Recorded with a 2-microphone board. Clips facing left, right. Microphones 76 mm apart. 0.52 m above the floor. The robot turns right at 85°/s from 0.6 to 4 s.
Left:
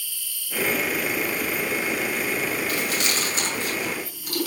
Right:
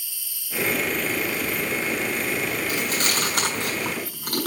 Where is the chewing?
10° right (ahead or behind), 6 m; by 4.5 s 55° right (ahead or behind), 6 m.